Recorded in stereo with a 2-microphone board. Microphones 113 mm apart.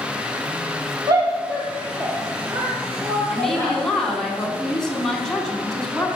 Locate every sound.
1.1 s a shout: 35° right (ahead or behind), 2 m; by 3.8 s 40° right (ahead or behind), 4 m
3.3 s a woman speaking: 5° left (ahead or behind), 3 m